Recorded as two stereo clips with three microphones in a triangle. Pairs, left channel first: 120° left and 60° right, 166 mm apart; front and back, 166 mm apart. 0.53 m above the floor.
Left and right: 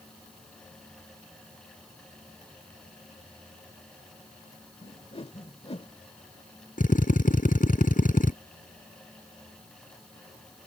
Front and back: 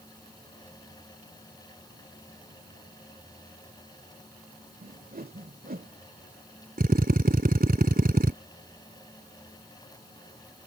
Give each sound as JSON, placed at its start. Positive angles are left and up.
{"t": 4.8, "sound": "a whoosh", "azimuth_deg": 170}
{"t": 6.8, "sound": "a drill", "azimuth_deg": 155}